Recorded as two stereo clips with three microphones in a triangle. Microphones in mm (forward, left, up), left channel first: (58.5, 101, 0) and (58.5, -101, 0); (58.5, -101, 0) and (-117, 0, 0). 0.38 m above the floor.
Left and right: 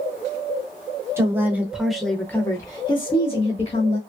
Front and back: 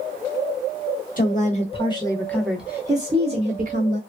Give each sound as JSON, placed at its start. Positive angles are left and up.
{"t": 1.2, "sound": "a woman speaking", "azimuth_deg": -20, "distance_m": 1.1}